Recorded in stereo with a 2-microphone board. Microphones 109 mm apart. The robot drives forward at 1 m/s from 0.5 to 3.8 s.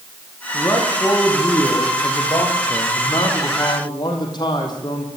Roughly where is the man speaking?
Left.